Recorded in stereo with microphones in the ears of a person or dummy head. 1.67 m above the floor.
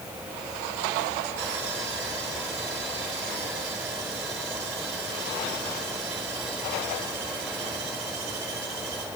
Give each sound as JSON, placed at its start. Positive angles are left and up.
{"t": 1.4, "sound": "sawing", "side_deg": -60, "distance_m": 7.0}